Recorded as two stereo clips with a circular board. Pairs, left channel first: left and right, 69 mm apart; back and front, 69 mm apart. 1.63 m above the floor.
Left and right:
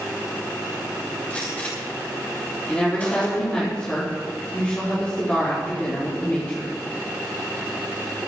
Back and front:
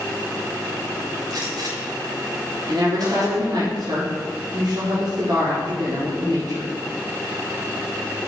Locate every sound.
1.3 s a gunshot: 20° left, 6.5 m
2.7 s a woman speaking: 20° left, 5 m